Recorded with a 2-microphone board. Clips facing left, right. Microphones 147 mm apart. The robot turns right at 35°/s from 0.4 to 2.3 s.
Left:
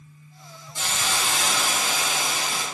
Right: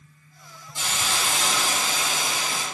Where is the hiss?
25° right, 1.8 m; by 2.6 s 30° left, 1.8 m.